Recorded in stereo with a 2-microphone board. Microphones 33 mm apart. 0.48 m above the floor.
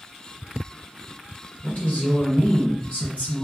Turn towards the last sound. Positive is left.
turn(degrees=45)  # may be behind; listen again after turning